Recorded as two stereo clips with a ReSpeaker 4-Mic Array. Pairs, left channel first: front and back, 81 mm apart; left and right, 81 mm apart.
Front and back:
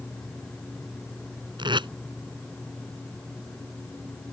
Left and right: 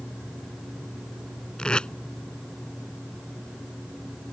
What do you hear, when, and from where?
1.6 s tape being pulled: 170° left